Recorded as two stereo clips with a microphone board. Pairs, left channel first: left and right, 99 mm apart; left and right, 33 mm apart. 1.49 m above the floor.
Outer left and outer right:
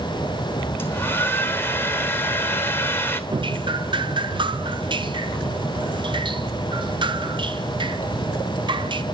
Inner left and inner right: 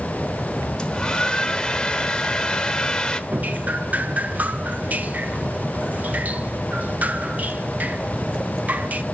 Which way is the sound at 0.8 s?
20° left (ahead or behind).